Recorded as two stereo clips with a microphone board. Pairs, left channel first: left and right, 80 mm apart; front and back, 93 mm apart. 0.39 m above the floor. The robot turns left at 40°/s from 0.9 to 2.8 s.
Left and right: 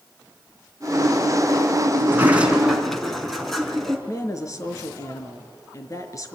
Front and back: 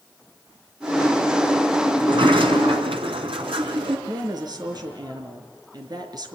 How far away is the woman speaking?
About 4.5 m.